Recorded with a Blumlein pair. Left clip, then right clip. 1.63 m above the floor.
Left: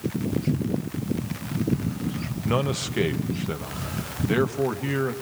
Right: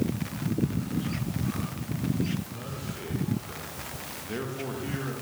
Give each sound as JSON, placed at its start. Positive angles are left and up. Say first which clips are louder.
{"t": 2.5, "sound": "a man speaking", "louder": "left 13 dB", "azimuth_deg": 45, "distance_m": 1.3}